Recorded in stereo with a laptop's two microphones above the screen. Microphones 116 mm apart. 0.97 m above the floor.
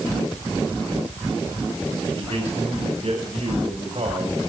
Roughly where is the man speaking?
Right.